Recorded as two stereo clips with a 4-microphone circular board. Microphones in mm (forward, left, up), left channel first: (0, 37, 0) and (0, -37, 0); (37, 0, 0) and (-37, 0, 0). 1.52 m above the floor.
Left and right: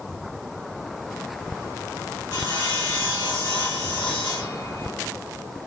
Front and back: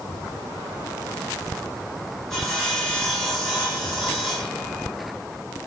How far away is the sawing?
About 2.0 m.